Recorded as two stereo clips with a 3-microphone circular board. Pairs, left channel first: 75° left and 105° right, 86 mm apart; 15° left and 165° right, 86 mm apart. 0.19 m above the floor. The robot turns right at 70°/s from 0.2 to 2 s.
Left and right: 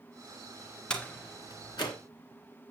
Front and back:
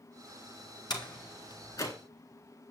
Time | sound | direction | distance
0.9 | a door slam | 5° right | 2 m